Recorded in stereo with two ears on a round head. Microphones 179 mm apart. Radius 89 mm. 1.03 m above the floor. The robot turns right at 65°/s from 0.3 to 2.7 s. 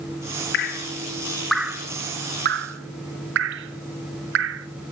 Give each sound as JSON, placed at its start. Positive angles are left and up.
{"t": 0.5, "sound": "dripping", "side_deg": 55, "distance_m": 0.7}